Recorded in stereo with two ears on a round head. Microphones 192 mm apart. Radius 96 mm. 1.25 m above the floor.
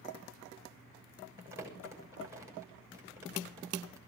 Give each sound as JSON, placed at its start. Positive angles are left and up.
{"t": 1.4, "sound": "crumpling", "side_deg": -15, "distance_m": 6.5}